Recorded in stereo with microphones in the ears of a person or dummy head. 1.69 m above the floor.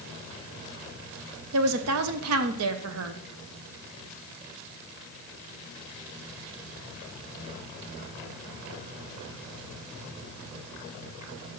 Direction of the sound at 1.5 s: 80° right.